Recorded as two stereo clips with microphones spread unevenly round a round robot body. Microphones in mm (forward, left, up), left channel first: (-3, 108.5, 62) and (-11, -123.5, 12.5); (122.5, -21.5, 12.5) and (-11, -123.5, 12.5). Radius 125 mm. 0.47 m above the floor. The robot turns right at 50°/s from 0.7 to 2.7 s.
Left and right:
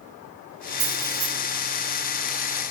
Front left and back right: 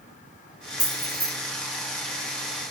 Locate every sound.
0.8 s keys jangling: 45° right, 6.5 m; by 1.3 s 25° right, 6.5 m